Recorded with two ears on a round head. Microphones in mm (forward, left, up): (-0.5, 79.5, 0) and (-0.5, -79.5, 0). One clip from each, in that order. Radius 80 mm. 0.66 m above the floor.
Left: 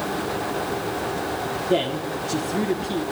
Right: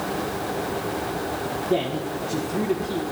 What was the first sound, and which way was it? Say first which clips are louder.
A man speaking: left 2 dB; 50° left (ahead or behind).